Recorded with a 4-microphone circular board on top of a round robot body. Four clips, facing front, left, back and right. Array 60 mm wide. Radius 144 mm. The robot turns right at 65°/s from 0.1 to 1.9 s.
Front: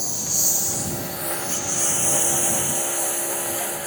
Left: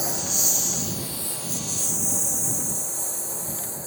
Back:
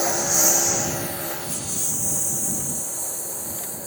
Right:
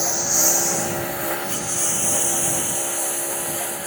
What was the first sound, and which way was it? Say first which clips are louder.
A lawn mower: right 6 dB, back 9 dB; 160° right.